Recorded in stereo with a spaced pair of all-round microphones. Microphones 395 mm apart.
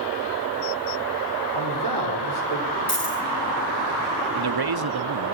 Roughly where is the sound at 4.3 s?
Right.